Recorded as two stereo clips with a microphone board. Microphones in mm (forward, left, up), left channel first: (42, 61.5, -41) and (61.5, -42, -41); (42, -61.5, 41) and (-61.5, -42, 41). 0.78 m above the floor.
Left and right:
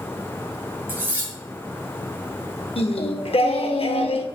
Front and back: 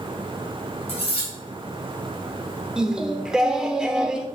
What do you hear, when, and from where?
0.9 s cutlery clinking: 10° right, 2.5 m
2.8 s singing: 90° left, 0.6 m